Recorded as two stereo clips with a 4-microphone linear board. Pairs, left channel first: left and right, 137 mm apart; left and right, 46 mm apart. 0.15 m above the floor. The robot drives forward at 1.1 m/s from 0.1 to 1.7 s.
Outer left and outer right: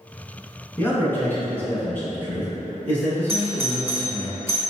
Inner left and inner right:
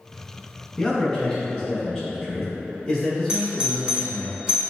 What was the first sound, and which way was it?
A man speaking, 20° left (ahead or behind).